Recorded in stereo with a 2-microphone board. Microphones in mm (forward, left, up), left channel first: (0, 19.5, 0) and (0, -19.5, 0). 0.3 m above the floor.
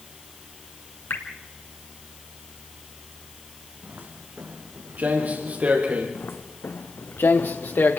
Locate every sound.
1.1 s dripping: 75° left (ahead or behind), 2.0 m
3.8 s footsteps: 50° right (ahead or behind), 5 m; by 6.0 s 35° right (ahead or behind), 5.5 m
6.2 s footsteps: 65° left (ahead or behind), 1.1 m; by 8.0 s 60° left (ahead or behind), 2.5 m